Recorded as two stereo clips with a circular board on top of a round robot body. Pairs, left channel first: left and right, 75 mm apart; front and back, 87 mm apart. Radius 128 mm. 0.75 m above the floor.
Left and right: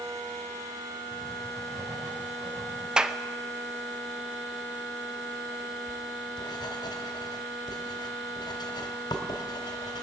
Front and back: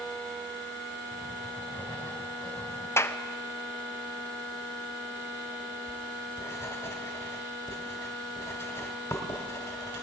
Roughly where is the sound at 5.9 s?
Ahead left.